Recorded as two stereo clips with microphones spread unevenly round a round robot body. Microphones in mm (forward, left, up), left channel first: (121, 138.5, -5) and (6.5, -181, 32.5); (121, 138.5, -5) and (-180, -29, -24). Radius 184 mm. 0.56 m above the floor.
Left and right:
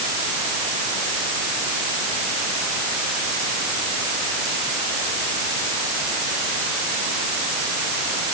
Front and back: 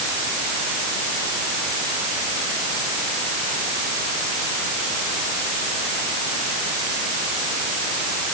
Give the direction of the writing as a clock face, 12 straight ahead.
I don't hear writing.